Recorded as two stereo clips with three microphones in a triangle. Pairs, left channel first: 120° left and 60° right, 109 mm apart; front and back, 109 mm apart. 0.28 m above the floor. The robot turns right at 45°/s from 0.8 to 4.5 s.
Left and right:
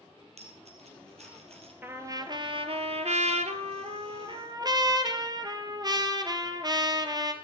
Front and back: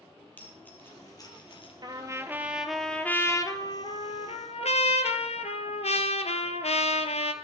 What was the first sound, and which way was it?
A dropped coin, 75° right.